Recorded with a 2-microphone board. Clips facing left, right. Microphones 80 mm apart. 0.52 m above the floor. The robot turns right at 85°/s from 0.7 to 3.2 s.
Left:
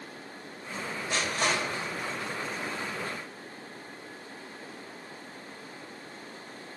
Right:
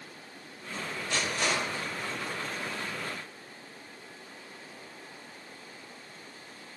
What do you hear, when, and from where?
1.1 s crushing: 20° left (ahead or behind), 1.9 m; by 2.3 s 50° left (ahead or behind), 1.9 m